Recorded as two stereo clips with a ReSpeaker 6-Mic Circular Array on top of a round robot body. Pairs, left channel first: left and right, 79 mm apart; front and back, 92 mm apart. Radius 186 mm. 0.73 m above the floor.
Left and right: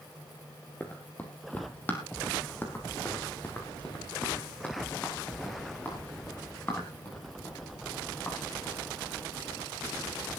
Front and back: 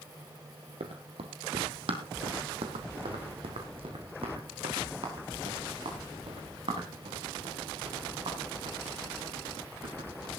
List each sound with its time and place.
0.8 s running footsteps: 160° left, 1.5 m